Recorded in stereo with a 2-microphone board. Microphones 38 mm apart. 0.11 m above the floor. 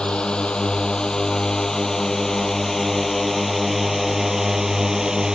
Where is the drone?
30° left (ahead or behind); by 5.4 s 15° right (ahead or behind).